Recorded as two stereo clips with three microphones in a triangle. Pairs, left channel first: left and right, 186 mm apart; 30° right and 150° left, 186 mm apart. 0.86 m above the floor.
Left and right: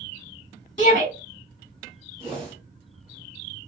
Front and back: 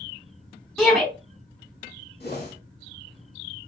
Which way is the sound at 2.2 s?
35° right.